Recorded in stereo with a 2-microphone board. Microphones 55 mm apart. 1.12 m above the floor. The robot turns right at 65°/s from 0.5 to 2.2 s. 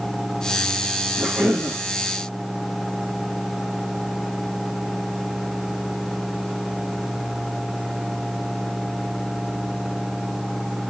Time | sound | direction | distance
1.2 | a cough | 150° right | 1.8 m